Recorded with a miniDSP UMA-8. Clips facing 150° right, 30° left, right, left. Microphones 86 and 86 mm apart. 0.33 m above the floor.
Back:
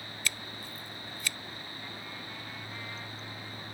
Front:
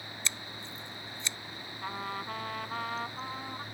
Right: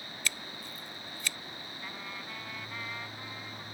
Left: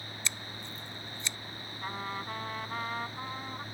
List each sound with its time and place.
0.2 s scissors: 55° left
1.8 s a trumpet: 45° left